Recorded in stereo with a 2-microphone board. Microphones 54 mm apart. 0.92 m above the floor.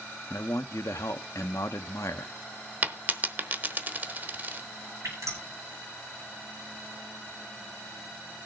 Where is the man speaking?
70° left (ahead or behind), 1.1 m.